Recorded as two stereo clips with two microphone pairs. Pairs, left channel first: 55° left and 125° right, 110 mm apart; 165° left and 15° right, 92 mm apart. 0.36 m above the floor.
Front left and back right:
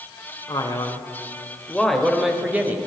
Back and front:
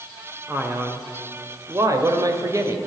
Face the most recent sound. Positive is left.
turn(degrees=-60)